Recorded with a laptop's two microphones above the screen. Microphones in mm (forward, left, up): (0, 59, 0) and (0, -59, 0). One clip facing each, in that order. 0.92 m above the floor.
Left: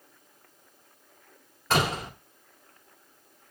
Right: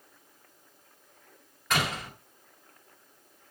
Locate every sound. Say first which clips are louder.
1.7 s a door slam: left 4 dB; 30° left (ahead or behind), 1.6 m